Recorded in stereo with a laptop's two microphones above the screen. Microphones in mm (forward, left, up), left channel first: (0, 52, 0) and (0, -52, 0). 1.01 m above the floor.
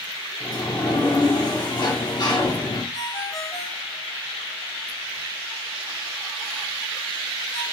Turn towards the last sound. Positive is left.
turn(degrees=45)  # may be behind; listen again after turning